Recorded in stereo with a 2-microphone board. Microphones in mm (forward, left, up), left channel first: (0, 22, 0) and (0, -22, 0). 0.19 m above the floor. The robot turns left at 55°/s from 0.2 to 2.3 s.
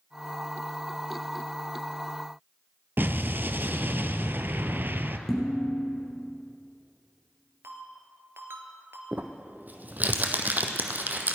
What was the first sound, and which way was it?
An explosion, 50° right (ahead or behind).